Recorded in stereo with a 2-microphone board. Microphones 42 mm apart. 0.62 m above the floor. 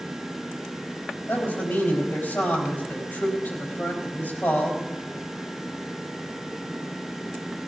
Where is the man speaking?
65° left (ahead or behind), 4 m.